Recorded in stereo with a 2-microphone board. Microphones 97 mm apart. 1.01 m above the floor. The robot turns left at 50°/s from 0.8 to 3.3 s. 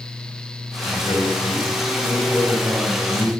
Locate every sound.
0.8 s a man speaking: 80° left, 7.5 m; by 3.3 s 45° right, 7.5 m